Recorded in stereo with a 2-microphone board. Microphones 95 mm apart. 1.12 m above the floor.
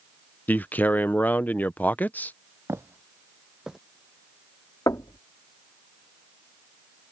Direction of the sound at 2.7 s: 30° right (ahead or behind).